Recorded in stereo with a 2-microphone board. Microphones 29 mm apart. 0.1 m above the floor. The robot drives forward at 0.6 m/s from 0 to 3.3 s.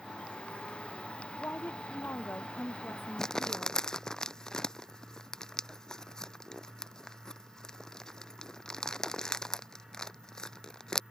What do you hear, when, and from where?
1.4 s a woman speaking: 85° left
3.2 s crumpling: 20° left (ahead or behind)